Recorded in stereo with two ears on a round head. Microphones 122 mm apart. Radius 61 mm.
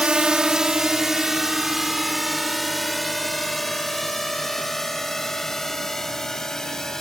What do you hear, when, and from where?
0.0 s a drone: 5° right (ahead or behind); by 7.0 s 5° left (ahead or behind)